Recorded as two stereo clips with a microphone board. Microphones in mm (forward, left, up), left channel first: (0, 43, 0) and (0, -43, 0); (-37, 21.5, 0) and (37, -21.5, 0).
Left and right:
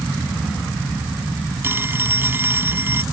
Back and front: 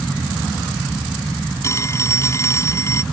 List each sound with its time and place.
1.6 s a phone ringing: 155° right